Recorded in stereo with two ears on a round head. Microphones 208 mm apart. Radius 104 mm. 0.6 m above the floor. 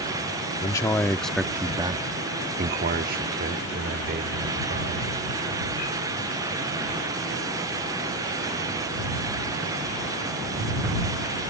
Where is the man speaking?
15° left (ahead or behind); by 5.1 s 45° right (ahead or behind).